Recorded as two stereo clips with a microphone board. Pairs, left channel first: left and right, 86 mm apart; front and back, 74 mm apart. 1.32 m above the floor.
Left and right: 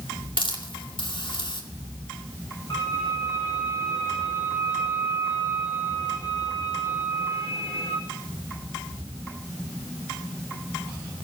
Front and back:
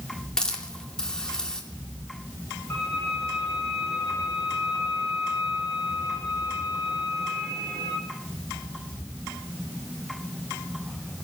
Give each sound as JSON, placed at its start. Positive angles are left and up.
{"t": 0.4, "sound": "a hiss", "azimuth_deg": 80, "distance_m": 2.0}
{"t": 2.7, "sound": "a violin", "azimuth_deg": 55, "distance_m": 7.0}